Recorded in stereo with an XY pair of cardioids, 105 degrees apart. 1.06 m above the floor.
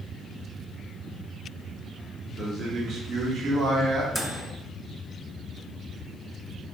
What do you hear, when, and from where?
2.4 s a man speaking: 55° right, 1.1 m
4.1 s a microwave: 15° right, 0.7 m